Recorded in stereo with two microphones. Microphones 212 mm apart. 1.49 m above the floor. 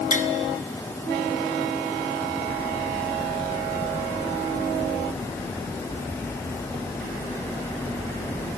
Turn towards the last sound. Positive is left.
turn(degrees=35)  # may be behind; listen again after turning